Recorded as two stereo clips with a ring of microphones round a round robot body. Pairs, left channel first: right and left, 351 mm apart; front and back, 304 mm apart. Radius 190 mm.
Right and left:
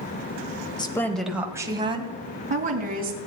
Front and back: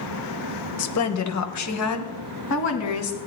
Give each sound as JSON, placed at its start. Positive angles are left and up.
{"t": 0.8, "sound": "a woman speaking", "azimuth_deg": -15, "distance_m": 1.5}